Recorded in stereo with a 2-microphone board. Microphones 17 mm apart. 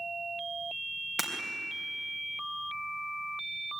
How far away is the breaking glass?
About 3.5 m.